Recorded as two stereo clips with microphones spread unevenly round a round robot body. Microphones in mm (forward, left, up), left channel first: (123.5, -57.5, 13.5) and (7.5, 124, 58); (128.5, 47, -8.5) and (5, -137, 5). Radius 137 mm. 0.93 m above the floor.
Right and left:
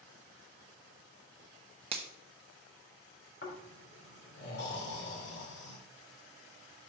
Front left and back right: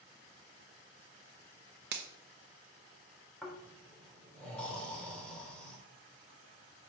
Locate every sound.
1.9 s a finger snap: 170° right, 0.8 m
3.4 s snoring: 30° right, 3 m